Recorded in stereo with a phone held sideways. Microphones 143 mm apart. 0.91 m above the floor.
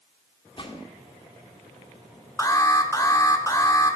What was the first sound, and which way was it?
A gunshot, 40° left (ahead or behind).